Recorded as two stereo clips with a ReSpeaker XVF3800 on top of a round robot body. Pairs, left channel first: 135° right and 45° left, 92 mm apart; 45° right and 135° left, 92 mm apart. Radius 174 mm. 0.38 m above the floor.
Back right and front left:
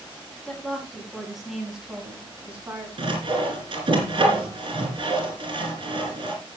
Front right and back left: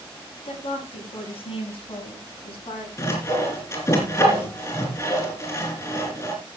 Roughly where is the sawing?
Ahead.